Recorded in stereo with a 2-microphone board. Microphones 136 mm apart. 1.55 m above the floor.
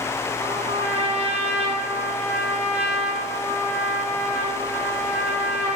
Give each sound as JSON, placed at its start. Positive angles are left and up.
{"t": 0.4, "sound": "a trumpet", "side_deg": -15, "distance_m": 2.5}